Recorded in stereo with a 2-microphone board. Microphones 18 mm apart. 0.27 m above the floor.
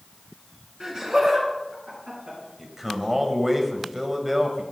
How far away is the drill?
No drill in this recording.